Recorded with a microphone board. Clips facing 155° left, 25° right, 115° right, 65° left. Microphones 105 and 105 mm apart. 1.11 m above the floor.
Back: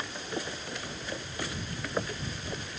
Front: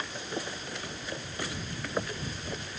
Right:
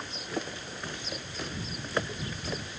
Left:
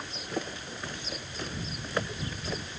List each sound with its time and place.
Only background noise.